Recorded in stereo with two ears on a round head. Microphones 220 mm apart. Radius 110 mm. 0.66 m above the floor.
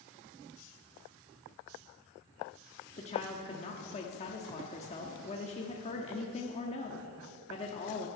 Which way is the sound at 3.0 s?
30° left (ahead or behind).